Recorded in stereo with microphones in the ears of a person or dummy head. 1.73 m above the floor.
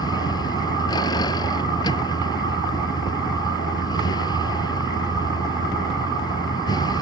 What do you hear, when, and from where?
0.0 s a vehicle: 20° left (ahead or behind)